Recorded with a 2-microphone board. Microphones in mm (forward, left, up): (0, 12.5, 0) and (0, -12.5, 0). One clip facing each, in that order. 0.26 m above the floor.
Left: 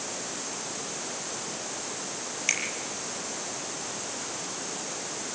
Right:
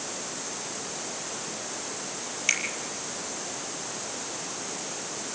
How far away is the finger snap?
About 5.5 m.